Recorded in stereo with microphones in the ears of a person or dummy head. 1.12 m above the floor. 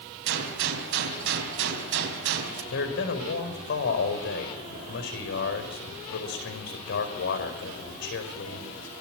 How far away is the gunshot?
About 4 m.